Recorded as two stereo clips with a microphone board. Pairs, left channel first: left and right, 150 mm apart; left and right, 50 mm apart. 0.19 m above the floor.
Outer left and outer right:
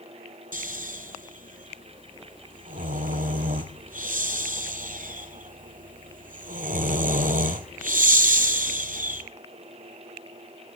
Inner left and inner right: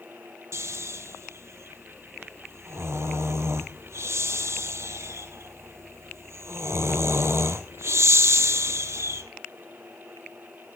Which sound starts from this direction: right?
Snoring, at 0.5 s.